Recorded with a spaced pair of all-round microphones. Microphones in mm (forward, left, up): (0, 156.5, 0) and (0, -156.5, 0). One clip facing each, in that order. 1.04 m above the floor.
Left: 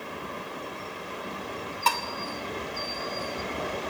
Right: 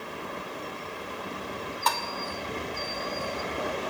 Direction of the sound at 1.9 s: 35° left (ahead or behind).